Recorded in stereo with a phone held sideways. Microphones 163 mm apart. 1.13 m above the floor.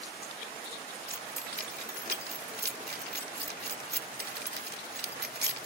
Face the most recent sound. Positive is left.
turn(degrees=-70)  # may be behind; listen again after turning